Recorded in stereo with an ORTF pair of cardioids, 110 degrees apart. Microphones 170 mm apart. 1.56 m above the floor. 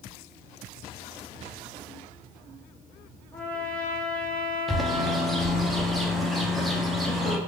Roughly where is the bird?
Ahead.